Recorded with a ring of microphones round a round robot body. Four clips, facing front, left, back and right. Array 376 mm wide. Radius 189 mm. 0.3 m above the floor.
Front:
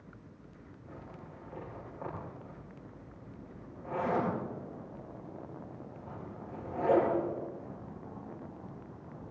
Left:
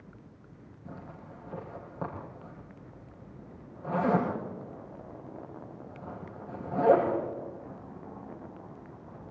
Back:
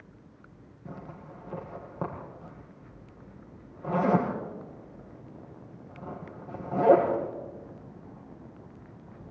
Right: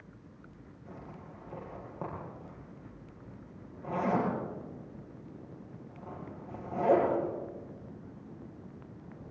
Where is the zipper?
175° left, 6 m.